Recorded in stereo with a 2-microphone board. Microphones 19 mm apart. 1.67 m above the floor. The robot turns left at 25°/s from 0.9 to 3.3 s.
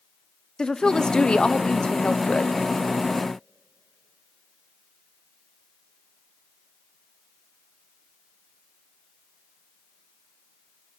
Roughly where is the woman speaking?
Behind left.